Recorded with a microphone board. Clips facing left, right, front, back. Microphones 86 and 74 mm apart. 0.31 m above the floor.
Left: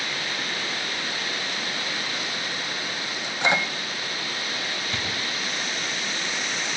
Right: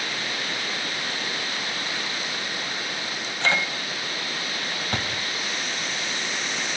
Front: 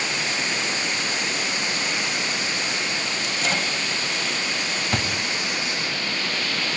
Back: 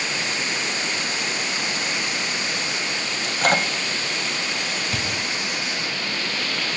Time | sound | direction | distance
3.2 | a microwave | 160° left | 1.4 m
4.9 | a thud | 50° right | 5.5 m